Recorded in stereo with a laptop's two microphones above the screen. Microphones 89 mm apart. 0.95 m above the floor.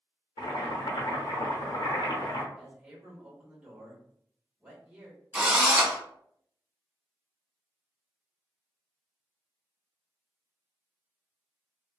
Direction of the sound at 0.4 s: 65° left (ahead or behind).